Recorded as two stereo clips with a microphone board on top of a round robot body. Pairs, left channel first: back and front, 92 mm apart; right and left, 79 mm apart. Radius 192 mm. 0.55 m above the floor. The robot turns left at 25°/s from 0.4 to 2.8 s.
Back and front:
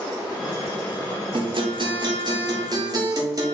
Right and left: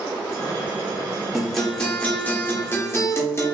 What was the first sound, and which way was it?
A guitar, straight ahead.